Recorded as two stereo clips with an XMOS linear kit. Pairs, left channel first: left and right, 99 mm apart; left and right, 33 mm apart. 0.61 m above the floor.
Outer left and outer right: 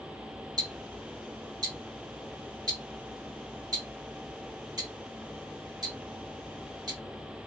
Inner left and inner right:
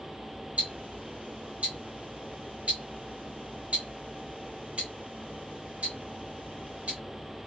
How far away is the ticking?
About 1.1 m.